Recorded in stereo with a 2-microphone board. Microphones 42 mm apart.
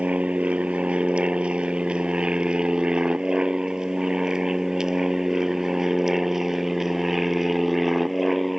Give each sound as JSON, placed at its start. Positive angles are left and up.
{"t": 0.0, "sound": "an aircraft", "side_deg": -30}